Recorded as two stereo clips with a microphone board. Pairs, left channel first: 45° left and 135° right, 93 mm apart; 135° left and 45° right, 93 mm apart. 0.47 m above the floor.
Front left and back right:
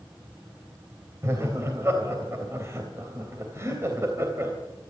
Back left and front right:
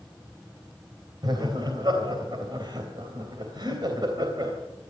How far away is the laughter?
About 3 m.